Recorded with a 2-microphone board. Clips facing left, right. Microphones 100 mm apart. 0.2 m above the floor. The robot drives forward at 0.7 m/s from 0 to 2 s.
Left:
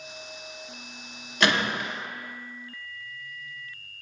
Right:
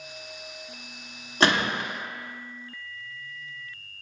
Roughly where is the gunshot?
Right.